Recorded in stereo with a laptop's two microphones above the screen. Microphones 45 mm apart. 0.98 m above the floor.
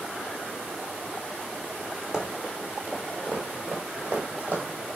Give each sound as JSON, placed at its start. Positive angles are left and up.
{"t": 2.1, "sound": "running footsteps", "side_deg": -20, "distance_m": 1.4}